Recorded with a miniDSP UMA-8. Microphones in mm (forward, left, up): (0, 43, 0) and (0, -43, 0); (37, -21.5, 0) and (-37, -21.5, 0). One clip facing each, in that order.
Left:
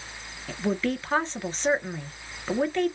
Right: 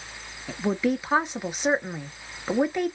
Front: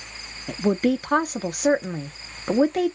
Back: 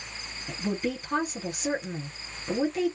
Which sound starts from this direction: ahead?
A woman speaking, at 0.5 s.